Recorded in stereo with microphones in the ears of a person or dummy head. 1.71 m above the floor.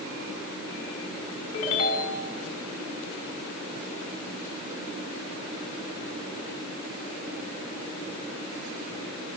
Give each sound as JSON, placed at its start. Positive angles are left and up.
{"t": 1.5, "sound": "a ringtone", "side_deg": 35, "distance_m": 3.5}